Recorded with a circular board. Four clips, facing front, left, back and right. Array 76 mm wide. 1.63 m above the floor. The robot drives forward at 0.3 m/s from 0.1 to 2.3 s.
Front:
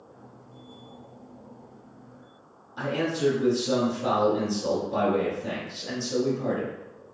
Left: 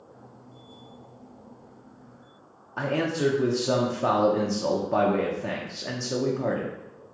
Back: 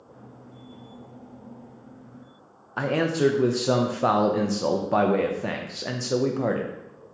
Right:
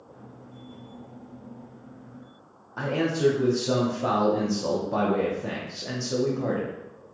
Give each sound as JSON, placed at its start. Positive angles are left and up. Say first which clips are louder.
{"t": 2.8, "sound": "a man speaking", "louder": "right 1 dB, back 4 dB", "azimuth_deg": 170, "distance_m": 0.6}